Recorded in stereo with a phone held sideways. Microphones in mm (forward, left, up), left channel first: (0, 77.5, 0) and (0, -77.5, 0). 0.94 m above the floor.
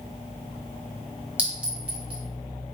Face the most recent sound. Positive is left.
turn(degrees=-10)  # may be behind; listen again after turning